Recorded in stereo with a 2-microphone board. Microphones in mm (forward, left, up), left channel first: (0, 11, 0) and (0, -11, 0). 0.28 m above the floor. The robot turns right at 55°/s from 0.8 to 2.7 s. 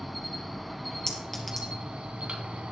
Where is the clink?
30° left (ahead or behind), 3.5 m; by 1.7 s 5° right (ahead or behind), 3.5 m.